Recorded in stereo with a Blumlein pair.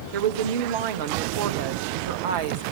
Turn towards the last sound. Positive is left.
turn(degrees=-55)